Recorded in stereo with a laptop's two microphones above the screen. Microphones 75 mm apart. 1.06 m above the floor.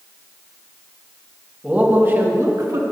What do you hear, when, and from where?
1.6 s a man speaking: 15° right (ahead or behind), 1.4 m; by 2.8 s 55° right (ahead or behind), 1.4 m